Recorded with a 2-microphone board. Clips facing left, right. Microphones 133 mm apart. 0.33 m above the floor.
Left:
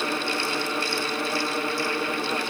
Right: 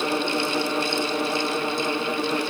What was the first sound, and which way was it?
Only background noise.